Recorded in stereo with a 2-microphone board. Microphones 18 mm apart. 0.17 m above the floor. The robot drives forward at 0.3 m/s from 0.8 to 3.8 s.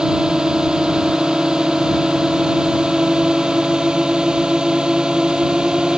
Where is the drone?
55° right (ahead or behind).